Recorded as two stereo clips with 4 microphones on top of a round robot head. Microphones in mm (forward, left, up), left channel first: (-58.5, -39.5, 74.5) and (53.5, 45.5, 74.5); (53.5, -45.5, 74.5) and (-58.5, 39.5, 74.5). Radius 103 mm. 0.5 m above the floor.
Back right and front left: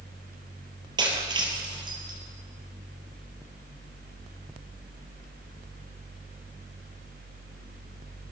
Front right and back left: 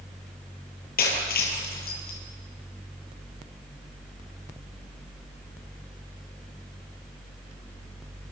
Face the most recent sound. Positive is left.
turn(degrees=-25)